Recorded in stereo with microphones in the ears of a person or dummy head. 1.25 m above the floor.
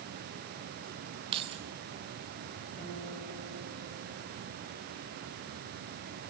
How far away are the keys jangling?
About 1.1 m.